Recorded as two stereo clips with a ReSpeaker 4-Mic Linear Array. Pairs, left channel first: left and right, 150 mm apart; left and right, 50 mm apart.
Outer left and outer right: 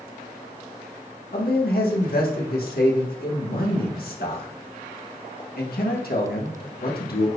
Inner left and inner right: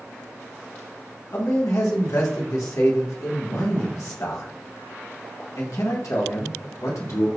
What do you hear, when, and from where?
1.3 s a man speaking: 75° left (ahead or behind), 1.6 m